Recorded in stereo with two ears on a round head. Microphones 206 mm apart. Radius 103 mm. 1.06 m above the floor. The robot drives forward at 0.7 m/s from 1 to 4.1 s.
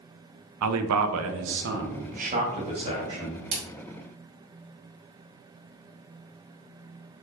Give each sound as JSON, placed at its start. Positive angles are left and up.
{"t": 0.6, "sound": "a man speaking", "side_deg": -75, "distance_m": 0.6}
{"t": 3.5, "sound": "a splash", "side_deg": -50, "distance_m": 1.9}